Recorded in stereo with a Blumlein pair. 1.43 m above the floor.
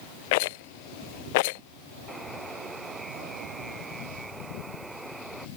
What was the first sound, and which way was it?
A rattle, 50° left.